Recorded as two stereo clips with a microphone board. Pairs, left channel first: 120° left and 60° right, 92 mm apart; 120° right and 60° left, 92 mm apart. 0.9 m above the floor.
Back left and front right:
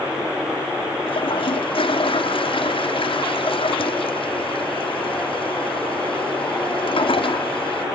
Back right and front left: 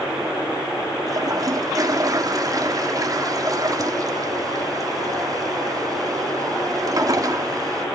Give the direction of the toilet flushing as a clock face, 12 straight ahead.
8 o'clock.